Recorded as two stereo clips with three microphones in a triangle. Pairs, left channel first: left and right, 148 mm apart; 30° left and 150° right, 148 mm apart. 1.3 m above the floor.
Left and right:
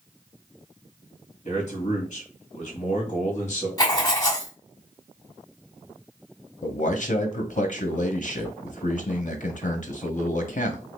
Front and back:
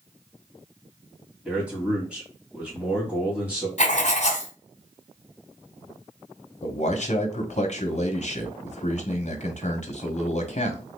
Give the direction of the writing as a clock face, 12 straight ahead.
11 o'clock.